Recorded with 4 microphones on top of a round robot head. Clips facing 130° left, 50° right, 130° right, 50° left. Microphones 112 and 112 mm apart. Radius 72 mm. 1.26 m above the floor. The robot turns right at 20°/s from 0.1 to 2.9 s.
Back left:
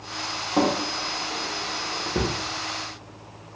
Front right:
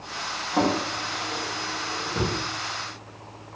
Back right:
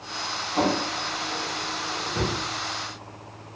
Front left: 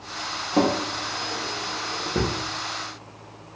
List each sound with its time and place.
0.5 s a drawer: 55° left, 0.8 m; by 2.3 s 90° left, 0.8 m